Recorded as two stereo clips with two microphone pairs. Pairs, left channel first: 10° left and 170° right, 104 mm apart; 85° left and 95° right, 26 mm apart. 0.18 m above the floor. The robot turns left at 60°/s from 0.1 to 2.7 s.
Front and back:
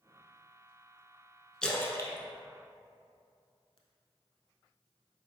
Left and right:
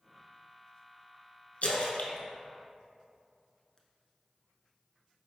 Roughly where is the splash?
Left.